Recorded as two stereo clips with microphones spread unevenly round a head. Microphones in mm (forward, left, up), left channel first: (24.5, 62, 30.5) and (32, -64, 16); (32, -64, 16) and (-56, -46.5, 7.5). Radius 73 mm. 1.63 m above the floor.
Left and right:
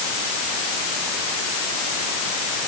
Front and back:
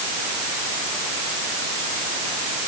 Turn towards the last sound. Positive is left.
No sound to turn to.